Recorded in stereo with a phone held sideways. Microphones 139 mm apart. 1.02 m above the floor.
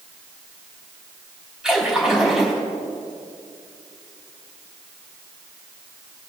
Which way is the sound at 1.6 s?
5° right (ahead or behind).